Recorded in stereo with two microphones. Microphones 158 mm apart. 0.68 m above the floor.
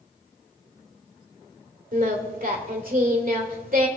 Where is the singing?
60° right (ahead or behind), 2 m.